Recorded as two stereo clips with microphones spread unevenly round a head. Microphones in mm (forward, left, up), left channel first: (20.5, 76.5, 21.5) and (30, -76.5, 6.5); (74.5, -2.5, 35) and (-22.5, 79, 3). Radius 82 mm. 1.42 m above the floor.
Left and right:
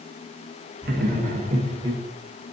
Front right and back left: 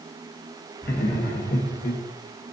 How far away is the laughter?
About 1.4 m.